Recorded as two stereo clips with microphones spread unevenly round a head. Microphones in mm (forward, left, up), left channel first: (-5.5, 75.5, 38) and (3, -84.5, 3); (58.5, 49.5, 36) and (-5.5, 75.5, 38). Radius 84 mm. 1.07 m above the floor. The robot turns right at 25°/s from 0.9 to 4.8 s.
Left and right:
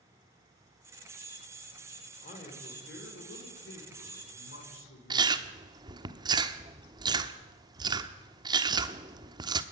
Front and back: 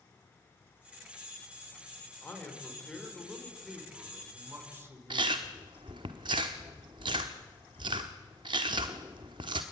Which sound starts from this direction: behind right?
Chewing, at 5.1 s.